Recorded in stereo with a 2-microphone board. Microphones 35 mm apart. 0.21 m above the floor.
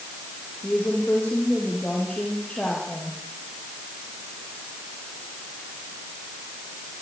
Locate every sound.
0.6 s a woman speaking: 30° left (ahead or behind), 6.5 m